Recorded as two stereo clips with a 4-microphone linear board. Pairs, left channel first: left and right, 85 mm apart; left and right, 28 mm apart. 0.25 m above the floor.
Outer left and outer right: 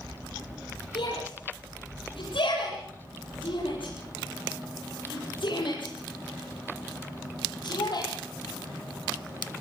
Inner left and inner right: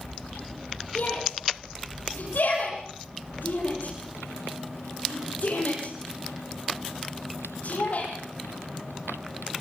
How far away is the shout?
About 8.5 m.